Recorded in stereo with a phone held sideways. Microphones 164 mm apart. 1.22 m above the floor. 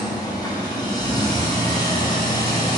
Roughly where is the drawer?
No drawer in this recording.